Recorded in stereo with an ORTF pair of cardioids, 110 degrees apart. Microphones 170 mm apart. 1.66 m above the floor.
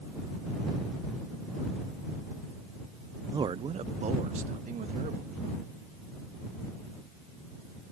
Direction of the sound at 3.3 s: 25° right.